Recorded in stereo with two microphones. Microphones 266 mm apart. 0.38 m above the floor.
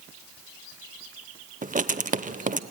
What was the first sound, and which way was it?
Writing, 30° right (ahead or behind).